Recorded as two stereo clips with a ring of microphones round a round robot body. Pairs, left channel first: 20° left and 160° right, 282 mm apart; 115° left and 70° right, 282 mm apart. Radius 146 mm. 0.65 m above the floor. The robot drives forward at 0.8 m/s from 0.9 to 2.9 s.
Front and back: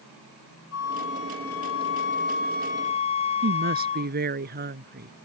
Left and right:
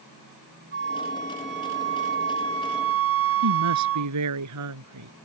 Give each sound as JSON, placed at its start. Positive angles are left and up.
{"t": 0.7, "sound": "a flute", "azimuth_deg": -15}
{"t": 3.4, "sound": "a woman speaking", "azimuth_deg": -100}